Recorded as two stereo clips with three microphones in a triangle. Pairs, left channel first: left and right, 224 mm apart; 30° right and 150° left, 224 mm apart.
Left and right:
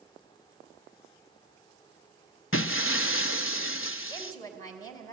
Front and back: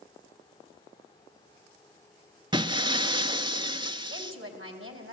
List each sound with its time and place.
2.5 s breaking glass: 85° left, 0.6 m
4.1 s a woman speaking: 160° left, 2.5 m